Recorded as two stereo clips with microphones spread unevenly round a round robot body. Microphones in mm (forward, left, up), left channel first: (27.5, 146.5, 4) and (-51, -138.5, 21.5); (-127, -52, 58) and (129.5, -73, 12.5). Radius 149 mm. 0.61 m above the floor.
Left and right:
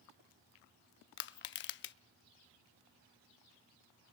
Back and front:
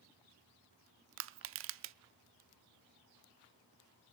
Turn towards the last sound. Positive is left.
turn(degrees=25)